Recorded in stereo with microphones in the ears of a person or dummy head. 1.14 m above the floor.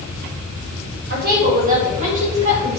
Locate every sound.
1.1 s a woman speaking: 50° right (ahead or behind), 3.5 m; by 2.8 s 30° right (ahead or behind), 4 m